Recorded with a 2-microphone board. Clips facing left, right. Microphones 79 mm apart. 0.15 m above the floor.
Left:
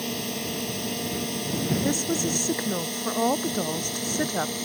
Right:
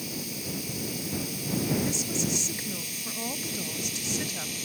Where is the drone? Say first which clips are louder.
Left 6 dB; 65° left (ahead or behind); by 4.6 s 50° left (ahead or behind).